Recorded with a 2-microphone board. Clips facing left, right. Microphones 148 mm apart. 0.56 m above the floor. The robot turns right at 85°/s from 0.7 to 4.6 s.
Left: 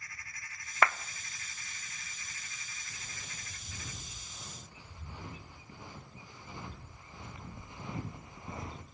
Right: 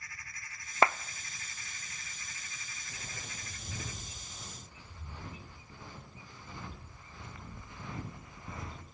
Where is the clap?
25° right (ahead or behind), 0.6 m; by 1.0 s 15° right (ahead or behind), 0.6 m.